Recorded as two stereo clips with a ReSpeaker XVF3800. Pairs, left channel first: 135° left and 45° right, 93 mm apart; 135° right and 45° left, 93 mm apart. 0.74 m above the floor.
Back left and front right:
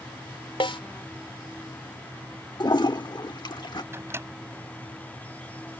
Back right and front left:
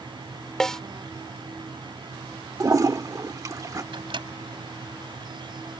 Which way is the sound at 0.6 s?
140° left.